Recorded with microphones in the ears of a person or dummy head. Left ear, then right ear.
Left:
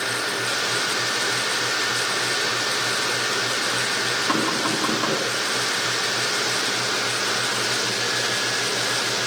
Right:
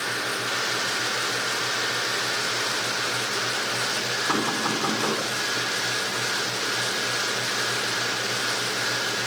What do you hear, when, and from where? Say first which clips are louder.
4.3 s knocking: left 2 dB; centre (ahead or behind), 6 m